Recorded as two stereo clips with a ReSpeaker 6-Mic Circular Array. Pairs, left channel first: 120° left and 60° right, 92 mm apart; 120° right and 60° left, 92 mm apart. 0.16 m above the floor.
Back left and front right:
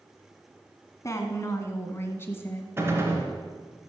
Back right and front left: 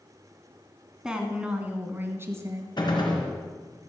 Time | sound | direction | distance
1.0 | a woman speaking | 135° left | 1.6 m
2.8 | a gunshot | 115° right | 2.5 m